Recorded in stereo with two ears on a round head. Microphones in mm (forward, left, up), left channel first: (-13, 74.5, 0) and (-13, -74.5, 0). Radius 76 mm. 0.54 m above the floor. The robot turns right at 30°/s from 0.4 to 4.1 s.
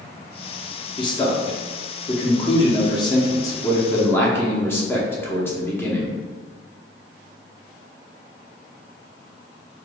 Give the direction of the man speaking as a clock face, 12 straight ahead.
10 o'clock.